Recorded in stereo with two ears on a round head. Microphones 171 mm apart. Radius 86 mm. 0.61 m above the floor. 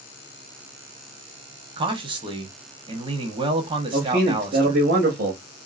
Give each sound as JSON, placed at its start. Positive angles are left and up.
{"t": 1.8, "sound": "a man speaking", "side_deg": -25, "distance_m": 0.8}
{"t": 3.9, "sound": "a man speaking", "side_deg": -45, "distance_m": 1.0}